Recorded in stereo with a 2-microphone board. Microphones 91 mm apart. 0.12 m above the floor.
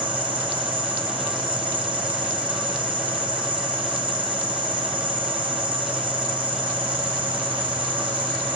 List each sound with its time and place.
0.0 s an insect: 65° right (ahead or behind), 2 m